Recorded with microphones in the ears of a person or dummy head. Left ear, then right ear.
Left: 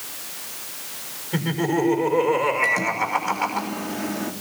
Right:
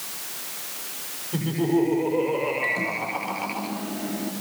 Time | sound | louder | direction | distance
1.3 | laughter | left 1 dB | 55° left (ahead or behind) | 6.5 m
2.6 | a microwave | left 4 dB | 45° left (ahead or behind) | 2.5 m